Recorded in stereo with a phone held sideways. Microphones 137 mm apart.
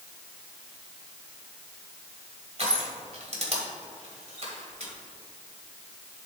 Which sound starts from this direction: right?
Crushing, at 2.6 s.